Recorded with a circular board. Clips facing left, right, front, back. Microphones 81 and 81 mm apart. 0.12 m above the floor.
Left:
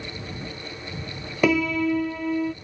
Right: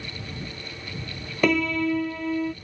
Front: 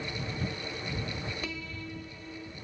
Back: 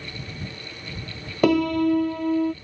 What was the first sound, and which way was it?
A piano, 175° left.